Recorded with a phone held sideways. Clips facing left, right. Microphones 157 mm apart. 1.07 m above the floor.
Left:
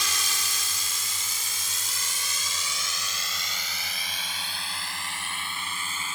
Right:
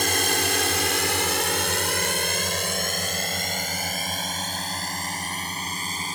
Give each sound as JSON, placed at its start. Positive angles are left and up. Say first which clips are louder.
{"t": 0.0, "sound": "a drone", "louder": "right 12 dB", "side_deg": -55}